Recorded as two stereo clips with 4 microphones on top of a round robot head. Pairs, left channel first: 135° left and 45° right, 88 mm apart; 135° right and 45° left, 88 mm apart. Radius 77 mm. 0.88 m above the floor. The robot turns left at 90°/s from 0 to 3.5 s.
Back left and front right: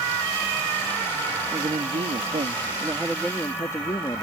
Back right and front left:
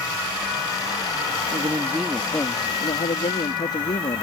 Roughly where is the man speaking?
Ahead.